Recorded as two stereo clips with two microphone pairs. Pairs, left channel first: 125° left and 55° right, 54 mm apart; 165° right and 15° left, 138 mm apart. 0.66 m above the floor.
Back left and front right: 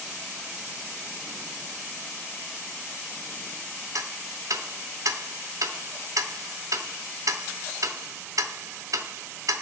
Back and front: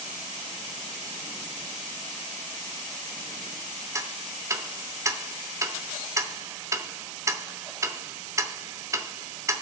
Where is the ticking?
55° right, 0.8 m.